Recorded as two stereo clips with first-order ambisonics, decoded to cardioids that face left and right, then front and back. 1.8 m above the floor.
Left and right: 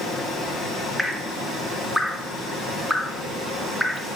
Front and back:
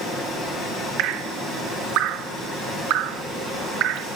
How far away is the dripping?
About 0.5 m.